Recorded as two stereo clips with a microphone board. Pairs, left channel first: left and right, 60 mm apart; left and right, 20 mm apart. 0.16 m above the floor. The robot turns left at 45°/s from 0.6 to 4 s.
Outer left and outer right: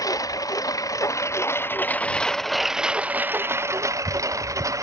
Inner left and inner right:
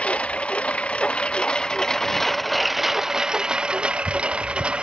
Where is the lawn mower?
90° left; by 4.8 s 65° right.